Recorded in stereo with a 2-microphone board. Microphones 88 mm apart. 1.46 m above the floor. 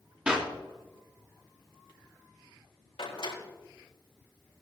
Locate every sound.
0.3 s a clap: 10° right (ahead or behind), 2.5 m
3.0 s a door slam: 70° left (ahead or behind), 4 m